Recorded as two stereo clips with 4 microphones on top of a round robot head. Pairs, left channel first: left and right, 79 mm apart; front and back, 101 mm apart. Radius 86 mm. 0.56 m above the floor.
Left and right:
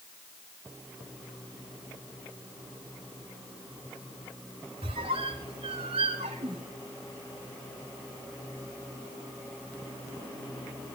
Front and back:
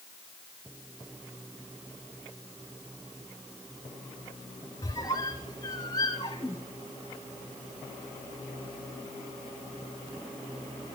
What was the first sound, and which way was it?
A squeak, 65° right.